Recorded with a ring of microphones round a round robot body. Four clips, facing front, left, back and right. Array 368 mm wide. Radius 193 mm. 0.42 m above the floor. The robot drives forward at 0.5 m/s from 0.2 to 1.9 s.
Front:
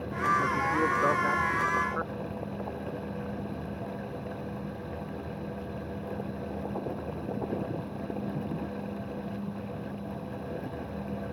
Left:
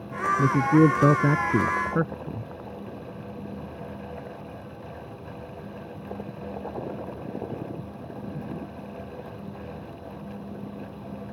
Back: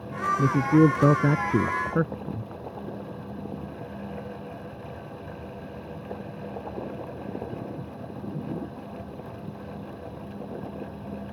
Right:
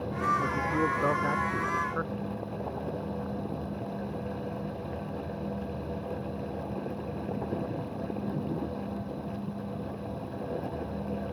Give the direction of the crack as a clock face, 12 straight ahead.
I don't hear a crack.